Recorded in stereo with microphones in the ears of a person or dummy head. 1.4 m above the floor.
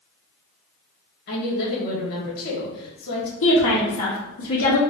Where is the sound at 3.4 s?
75° left (ahead or behind), 1.5 m.